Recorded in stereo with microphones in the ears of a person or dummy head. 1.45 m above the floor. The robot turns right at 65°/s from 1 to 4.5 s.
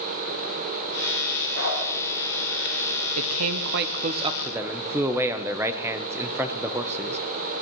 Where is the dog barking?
70° left (ahead or behind), 7.5 m; by 1.8 s 80° left, 7.5 m.